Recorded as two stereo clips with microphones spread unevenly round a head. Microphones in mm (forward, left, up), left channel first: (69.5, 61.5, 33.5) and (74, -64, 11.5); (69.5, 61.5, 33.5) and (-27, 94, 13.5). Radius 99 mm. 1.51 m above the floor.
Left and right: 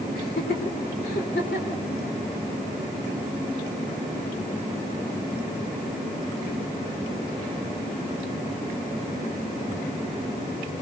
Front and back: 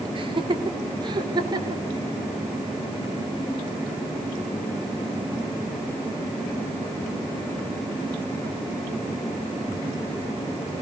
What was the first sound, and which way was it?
Laughter, 125° left.